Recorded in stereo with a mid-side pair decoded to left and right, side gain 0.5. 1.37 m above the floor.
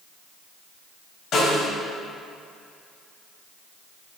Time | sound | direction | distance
1.3 | a snare drum | 60° left | 3 m